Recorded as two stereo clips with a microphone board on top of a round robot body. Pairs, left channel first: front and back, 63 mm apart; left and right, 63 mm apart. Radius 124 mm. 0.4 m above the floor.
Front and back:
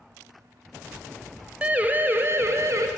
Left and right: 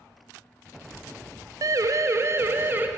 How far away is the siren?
About 2.5 m.